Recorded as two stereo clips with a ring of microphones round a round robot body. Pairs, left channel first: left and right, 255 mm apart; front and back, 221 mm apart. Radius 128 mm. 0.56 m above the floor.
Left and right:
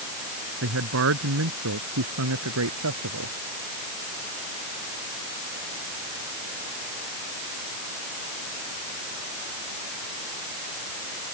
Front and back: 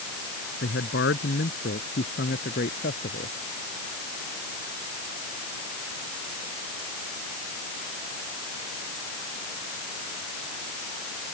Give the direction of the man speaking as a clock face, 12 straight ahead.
2 o'clock.